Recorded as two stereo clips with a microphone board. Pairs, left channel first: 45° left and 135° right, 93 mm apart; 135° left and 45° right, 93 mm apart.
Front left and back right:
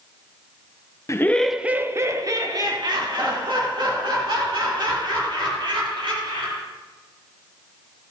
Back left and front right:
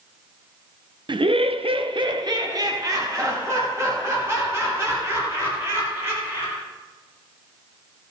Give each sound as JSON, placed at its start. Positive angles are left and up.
{"t": 1.1, "sound": "laughter", "azimuth_deg": -15, "distance_m": 0.6}